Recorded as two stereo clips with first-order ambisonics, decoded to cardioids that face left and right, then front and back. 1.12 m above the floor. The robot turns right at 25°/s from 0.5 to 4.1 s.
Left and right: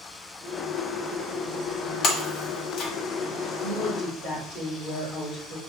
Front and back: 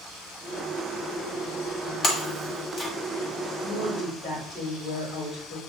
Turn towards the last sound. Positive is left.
turn(degrees=50)